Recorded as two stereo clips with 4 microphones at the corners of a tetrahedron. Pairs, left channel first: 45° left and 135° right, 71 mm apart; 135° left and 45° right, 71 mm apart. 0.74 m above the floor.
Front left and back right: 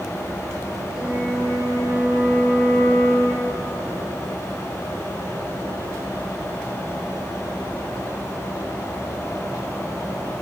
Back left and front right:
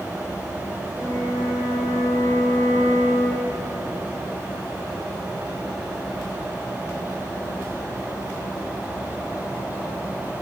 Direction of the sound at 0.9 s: 15° left.